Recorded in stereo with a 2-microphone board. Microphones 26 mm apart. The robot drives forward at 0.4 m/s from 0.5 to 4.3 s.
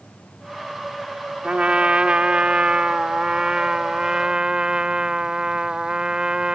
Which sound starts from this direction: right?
A trumpet, at 1.4 s.